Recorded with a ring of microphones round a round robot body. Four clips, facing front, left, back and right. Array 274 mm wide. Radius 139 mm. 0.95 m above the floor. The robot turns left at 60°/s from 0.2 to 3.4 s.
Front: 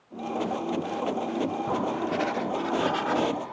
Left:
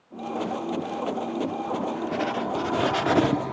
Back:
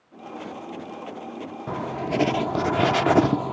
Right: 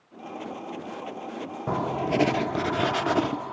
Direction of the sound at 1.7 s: 105° right.